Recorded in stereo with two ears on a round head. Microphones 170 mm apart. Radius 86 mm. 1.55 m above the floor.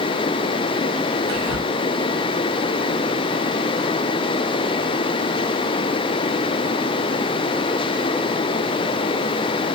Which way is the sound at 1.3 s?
80° right.